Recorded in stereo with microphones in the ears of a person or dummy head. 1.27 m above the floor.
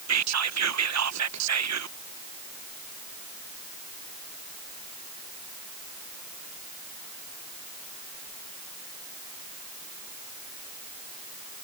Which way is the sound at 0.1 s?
75° right (ahead or behind).